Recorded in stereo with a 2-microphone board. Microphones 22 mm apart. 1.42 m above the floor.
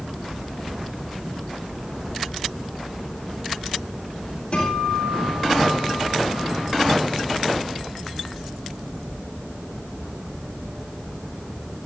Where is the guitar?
45° left (ahead or behind), 10 m.